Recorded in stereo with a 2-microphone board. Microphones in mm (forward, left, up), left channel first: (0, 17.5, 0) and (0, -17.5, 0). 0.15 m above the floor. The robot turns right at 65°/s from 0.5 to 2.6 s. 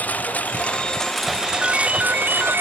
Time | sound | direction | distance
0.0 | a lawn mower | 135° left | ?
1.6 | a ringtone | 165° right | ?